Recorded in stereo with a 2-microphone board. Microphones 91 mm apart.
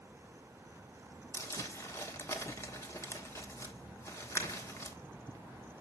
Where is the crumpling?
30° left (ahead or behind), 1.1 m.